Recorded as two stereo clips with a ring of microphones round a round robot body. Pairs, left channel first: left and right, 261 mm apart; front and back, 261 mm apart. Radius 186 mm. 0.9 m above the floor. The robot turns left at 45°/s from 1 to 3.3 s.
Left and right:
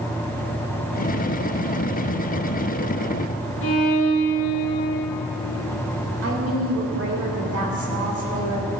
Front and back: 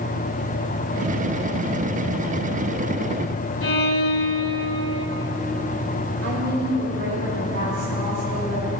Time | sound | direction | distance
3.6 | a violin | 30° left | 1.5 m
6.2 | a woman speaking | 120° right | 3.5 m